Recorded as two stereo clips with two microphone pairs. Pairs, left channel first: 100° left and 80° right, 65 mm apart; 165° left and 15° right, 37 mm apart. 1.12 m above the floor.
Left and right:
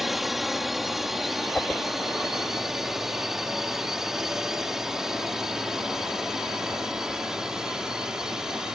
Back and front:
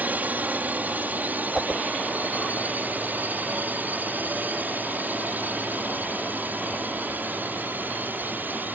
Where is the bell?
No bell in this recording.